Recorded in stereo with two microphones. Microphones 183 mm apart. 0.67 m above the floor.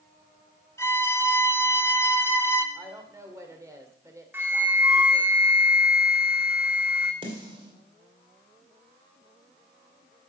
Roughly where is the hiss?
No hiss in this recording.